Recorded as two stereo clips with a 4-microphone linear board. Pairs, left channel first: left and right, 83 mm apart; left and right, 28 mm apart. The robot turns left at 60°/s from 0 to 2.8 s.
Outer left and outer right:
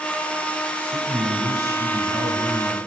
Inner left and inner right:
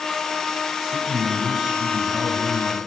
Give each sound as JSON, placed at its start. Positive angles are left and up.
{"t": 0.8, "sound": "a man speaking", "azimuth_deg": -40, "distance_m": 1.3}